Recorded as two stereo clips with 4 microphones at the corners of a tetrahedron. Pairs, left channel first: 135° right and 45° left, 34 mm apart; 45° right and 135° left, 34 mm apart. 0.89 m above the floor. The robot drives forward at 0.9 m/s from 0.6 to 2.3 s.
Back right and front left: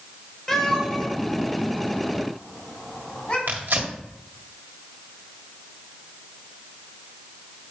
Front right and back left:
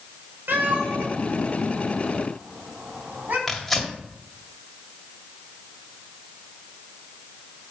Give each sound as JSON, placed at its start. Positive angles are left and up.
{"t": 0.5, "sound": "a cat meowing", "azimuth_deg": 145, "distance_m": 2.0}
{"t": 3.5, "sound": "tearing paper", "azimuth_deg": 40, "distance_m": 1.9}